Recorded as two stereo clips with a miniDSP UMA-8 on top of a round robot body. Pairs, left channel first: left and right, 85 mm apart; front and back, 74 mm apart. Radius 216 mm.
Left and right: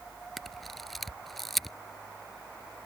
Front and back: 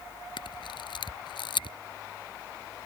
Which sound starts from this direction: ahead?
A camera shutter, at 0.4 s.